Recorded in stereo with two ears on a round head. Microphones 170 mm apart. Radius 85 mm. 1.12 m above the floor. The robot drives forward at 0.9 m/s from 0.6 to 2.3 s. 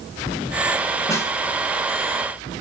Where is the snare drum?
15° left (ahead or behind), 1.8 m.